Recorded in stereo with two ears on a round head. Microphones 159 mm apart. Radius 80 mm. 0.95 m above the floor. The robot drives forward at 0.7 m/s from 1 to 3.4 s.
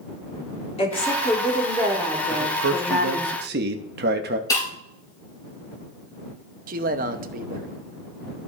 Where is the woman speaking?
30° left (ahead or behind), 3 m; by 3.3 s 20° left (ahead or behind), 4 m.